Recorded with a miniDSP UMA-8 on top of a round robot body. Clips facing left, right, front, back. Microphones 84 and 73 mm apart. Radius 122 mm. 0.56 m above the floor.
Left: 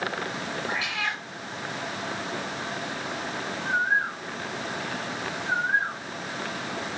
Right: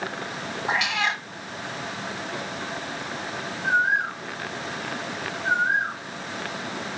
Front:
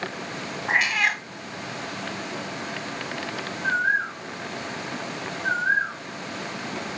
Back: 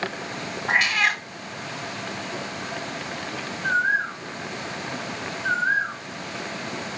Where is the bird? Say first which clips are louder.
Right 3 dB, back 1 dB; 90° right, 2.5 m.